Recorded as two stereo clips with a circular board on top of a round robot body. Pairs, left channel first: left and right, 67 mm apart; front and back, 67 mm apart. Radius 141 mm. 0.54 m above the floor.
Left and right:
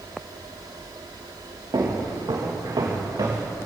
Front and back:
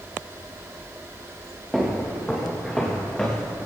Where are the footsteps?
90° right, 4.5 m; by 3.5 s 75° right, 4.5 m.